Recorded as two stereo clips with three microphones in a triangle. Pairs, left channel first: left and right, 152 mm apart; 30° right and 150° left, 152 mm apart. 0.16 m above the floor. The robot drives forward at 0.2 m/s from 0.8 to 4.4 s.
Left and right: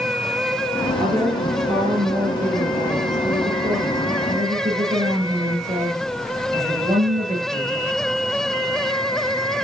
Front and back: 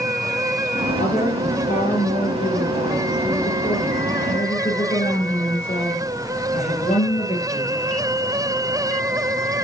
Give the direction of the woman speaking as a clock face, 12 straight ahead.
2 o'clock.